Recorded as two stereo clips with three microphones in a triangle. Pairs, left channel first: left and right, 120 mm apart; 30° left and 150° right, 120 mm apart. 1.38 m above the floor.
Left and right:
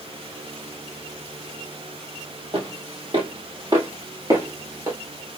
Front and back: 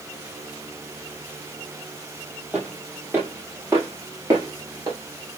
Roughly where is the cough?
No cough in this recording.